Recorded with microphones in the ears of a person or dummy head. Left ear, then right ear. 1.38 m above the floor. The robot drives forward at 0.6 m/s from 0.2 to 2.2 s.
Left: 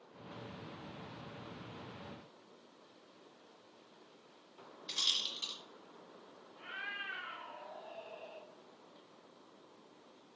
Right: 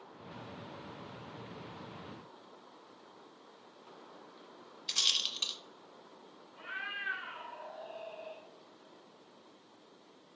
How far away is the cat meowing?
About 0.7 m.